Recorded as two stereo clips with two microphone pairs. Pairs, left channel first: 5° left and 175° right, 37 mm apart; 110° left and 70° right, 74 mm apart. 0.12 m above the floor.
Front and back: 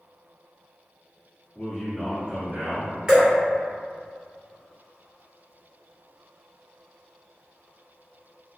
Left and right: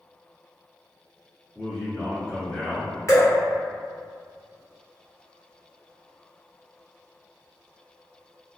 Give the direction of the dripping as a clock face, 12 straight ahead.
8 o'clock.